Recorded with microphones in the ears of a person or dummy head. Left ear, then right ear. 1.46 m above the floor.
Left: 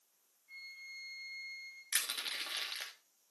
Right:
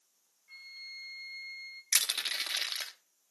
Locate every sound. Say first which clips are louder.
0.5 s a flute: right 3 dB; 25° right (ahead or behind), 1.0 m
1.9 s crushing: right 7 dB; 25° right (ahead or behind), 1.2 m